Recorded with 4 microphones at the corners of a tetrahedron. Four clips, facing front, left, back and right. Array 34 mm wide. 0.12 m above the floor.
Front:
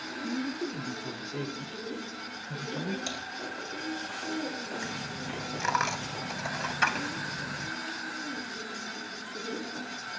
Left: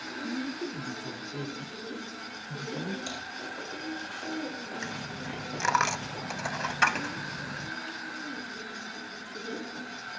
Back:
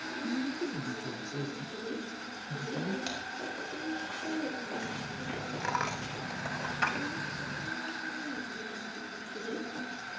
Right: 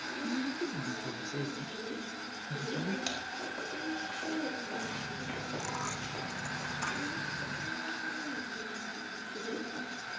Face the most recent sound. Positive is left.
turn(degrees=75)